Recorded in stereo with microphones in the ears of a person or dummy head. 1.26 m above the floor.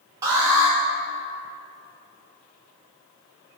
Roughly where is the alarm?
Centre.